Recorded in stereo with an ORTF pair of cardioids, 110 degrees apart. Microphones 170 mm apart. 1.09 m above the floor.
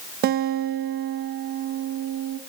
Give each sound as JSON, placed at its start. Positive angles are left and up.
{"t": 0.2, "sound": "a guitar", "azimuth_deg": -70, "distance_m": 1.2}